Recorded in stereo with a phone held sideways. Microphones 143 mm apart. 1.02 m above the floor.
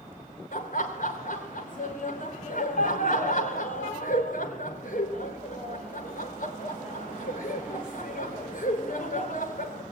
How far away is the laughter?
About 3 m.